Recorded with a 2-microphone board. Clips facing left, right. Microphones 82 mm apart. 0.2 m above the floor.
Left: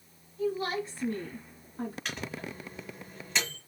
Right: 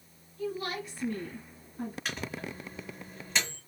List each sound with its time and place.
0.4 s a woman speaking: 20° left (ahead or behind), 1.0 m; by 1.9 s 55° left (ahead or behind), 1.6 m
2.0 s a microwave: 5° right (ahead or behind), 1.9 m